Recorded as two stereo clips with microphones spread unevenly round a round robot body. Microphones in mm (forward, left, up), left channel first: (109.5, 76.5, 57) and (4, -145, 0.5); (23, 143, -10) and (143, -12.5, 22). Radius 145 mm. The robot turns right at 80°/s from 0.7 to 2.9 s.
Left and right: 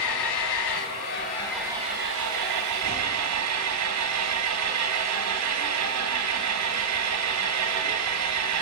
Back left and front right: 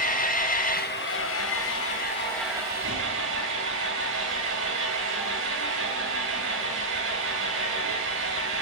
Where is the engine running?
85° left, 3 m; by 8.6 s 100° right, 3 m.